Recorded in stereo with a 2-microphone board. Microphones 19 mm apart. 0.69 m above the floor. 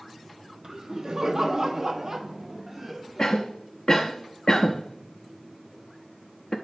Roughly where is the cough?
Left.